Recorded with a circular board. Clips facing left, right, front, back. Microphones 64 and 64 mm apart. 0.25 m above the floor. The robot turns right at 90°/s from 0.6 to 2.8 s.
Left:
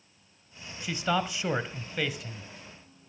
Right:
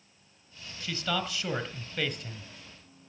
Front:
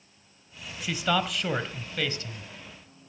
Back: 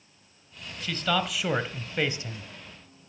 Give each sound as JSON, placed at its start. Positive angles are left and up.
{"t": 0.8, "sound": "a man speaking", "azimuth_deg": 50, "distance_m": 1.1}